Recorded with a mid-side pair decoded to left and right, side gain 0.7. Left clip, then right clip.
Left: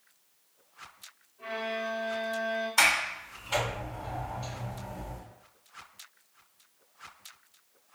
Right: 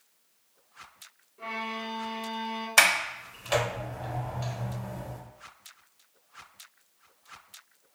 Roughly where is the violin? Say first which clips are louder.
Left 1 dB; ahead right.